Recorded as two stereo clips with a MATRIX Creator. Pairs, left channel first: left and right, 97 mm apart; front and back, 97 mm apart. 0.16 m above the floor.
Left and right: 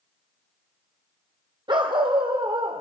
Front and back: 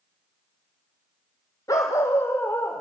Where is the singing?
I don't hear singing.